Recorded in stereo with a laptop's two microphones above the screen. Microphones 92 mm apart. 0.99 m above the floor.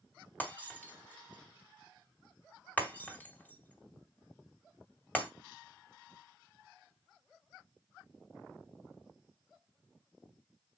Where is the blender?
I don't hear a blender.